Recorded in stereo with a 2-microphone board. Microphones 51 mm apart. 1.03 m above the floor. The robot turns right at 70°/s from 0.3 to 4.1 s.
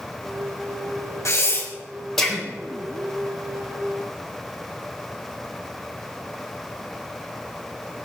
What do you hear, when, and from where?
1.2 s breathing: 75° left (ahead or behind), 4 m; by 2.5 s 10° right (ahead or behind), 4 m